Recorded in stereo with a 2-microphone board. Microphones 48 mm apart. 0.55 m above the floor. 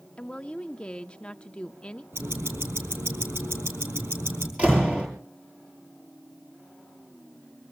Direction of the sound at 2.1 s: 60° right (ahead or behind).